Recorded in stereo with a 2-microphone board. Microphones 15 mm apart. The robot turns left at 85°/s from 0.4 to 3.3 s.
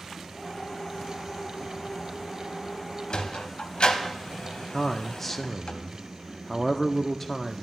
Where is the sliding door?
60° left (ahead or behind), 0.8 m; by 5.7 s 70° left (ahead or behind), 0.8 m.